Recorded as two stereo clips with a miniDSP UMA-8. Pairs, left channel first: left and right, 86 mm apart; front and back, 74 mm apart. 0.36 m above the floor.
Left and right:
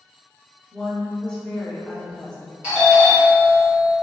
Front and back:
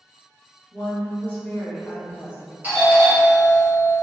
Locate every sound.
0.7 s a woman speaking: 25° left, 0.9 m
2.6 s a doorbell: 155° right, 1.7 m